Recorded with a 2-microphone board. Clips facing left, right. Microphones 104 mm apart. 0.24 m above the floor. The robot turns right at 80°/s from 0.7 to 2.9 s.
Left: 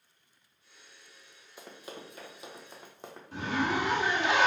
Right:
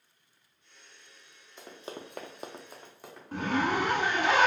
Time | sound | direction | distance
1.6 | running footsteps | 10° left (ahead or behind) | 0.8 m
3.3 | a zipper | 55° right (ahead or behind) | 0.8 m